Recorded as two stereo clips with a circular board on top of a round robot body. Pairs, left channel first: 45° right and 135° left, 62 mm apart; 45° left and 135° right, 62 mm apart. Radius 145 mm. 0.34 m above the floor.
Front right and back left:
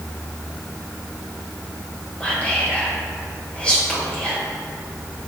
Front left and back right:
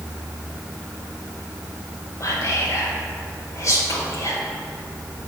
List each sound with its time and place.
2.2 s whispering: 25° left, 2.0 m